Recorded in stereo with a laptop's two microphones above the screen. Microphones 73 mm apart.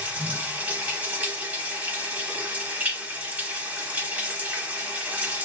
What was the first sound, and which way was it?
Running water, 20° right (ahead or behind).